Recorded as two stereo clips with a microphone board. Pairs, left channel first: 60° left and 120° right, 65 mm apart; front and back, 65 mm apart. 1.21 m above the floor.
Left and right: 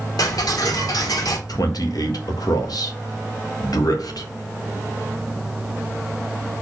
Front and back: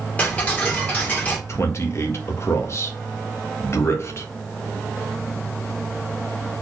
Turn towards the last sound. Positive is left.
turn(degrees=45)